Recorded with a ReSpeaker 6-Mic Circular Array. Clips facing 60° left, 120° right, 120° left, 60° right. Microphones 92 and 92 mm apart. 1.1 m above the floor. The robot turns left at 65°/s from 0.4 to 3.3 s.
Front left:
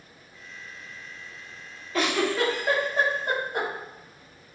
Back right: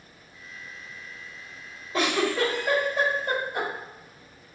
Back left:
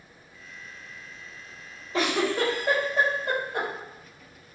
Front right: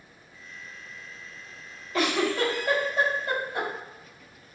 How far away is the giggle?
About 1.3 m.